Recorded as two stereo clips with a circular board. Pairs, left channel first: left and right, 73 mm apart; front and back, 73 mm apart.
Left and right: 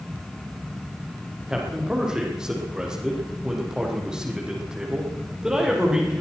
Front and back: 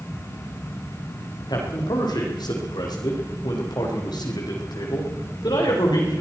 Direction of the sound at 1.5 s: 10° right.